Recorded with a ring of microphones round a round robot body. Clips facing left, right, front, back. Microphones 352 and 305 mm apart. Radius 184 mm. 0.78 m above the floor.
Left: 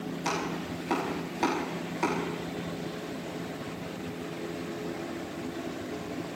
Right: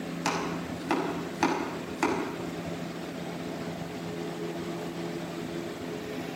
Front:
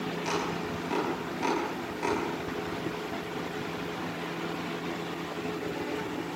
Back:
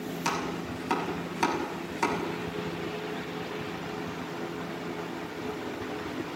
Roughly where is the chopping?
Behind right.